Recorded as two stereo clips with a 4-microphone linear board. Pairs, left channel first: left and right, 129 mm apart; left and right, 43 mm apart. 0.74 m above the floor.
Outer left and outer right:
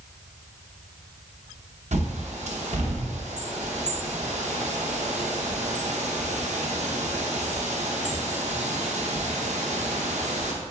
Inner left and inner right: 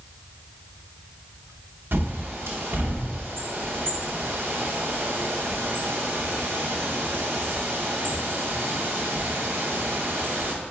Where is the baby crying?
No baby crying in this recording.